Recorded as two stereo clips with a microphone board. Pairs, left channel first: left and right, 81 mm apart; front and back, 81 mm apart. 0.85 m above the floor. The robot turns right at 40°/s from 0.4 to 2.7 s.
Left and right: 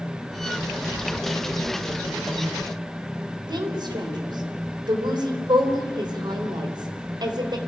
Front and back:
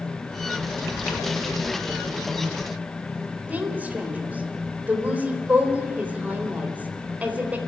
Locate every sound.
3.5 s a woman speaking: 110° right, 3.5 m